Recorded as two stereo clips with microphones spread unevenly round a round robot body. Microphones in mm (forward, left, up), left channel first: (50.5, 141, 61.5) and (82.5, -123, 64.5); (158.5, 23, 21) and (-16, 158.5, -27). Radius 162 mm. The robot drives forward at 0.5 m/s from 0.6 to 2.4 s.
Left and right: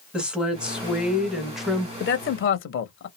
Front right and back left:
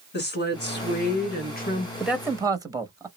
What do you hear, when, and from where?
0.1 s a woman speaking: 5° left, 1.6 m
2.0 s a man speaking: 65° left, 0.7 m; by 3.1 s 85° left, 0.6 m